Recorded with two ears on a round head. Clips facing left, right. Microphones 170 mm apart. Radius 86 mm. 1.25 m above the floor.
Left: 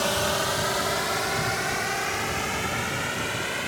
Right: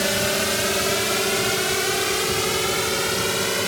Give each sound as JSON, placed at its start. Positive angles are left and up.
{"t": 0.0, "sound": "a drone", "side_deg": -25}